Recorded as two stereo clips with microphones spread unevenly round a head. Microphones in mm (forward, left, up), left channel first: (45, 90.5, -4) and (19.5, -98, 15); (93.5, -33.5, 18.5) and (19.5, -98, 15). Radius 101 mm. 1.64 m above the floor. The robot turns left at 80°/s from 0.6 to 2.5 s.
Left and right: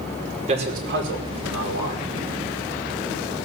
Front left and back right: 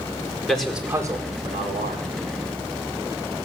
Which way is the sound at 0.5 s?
40° right.